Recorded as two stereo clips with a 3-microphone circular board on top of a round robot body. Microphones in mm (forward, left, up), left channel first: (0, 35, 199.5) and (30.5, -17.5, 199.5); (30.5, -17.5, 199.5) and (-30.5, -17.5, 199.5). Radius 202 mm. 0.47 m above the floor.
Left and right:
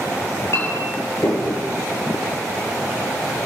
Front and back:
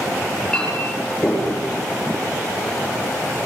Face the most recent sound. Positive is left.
turn(degrees=70)